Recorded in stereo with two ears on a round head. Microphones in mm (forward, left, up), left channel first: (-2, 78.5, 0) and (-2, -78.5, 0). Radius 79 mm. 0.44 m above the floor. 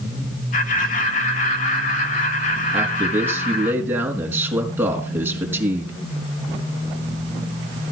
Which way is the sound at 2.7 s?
10° right (ahead or behind).